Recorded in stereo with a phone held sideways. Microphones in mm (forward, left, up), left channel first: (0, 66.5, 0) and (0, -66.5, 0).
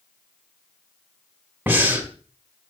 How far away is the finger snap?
I don't hear a finger snap.